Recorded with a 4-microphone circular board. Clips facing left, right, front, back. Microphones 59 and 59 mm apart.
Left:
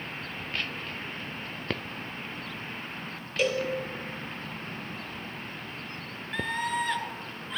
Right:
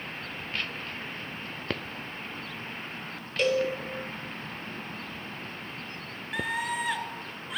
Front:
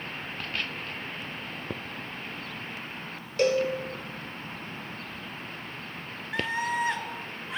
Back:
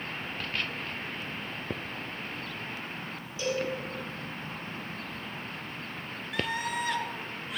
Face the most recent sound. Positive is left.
turn(degrees=-15)